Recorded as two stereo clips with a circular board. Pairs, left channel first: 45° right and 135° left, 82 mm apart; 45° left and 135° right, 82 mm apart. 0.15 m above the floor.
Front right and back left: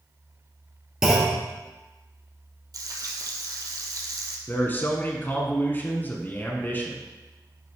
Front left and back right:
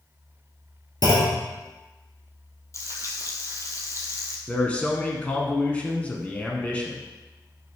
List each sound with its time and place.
1.0 s a clunk: 50° left, 1.8 m
2.7 s frying: 95° left, 1.1 m
4.5 s a man speaking: 15° right, 1.3 m